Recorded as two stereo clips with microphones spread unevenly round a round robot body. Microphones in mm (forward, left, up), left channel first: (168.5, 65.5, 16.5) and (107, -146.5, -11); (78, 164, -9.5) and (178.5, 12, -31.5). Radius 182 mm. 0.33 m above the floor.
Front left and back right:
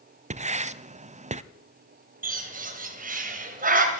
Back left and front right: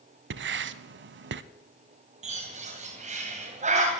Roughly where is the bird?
Right.